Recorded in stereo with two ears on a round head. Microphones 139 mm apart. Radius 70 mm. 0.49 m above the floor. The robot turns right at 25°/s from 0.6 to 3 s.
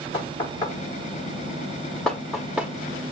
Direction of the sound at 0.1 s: 30° left (ahead or behind).